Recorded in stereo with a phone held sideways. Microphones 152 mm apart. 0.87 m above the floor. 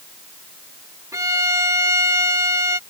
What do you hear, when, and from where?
1.1 s a violin: 20° right (ahead or behind)